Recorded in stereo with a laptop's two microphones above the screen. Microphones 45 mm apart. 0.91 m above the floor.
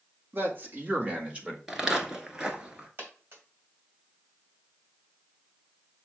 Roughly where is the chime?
No chime in this recording.